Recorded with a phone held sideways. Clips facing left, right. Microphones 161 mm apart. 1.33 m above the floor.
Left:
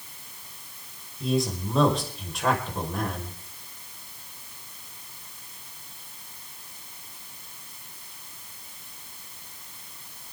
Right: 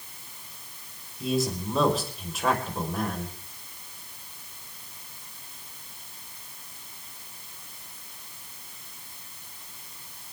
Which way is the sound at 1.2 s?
Centre (ahead or behind).